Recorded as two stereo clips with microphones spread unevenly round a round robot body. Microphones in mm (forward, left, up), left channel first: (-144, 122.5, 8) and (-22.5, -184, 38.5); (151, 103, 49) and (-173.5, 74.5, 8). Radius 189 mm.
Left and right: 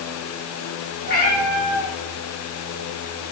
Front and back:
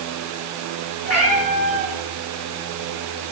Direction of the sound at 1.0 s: 45° left.